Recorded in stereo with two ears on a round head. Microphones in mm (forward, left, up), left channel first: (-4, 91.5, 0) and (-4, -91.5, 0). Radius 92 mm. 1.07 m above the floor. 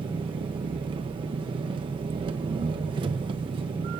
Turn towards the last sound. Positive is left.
turn(degrees=-25)  # may be behind; listen again after turning